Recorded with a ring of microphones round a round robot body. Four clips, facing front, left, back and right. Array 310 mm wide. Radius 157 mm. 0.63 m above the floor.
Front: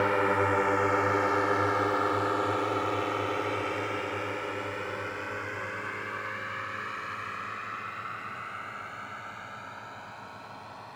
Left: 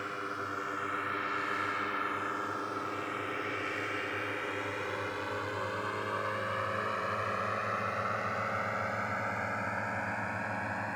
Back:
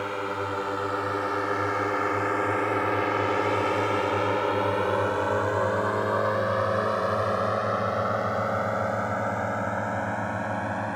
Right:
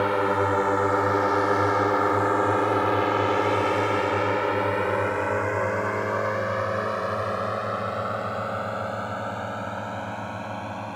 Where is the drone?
70° right; by 11.0 s 165° right.